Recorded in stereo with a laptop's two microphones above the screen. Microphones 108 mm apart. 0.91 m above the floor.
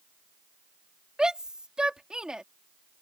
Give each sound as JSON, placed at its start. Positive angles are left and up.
{"t": 1.2, "sound": "a shout", "side_deg": -10}